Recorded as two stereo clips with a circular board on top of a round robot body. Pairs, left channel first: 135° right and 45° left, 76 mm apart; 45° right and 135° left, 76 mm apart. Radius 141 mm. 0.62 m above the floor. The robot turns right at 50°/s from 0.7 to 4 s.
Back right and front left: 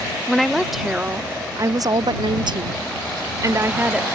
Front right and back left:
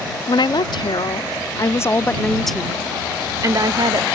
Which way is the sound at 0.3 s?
45° right.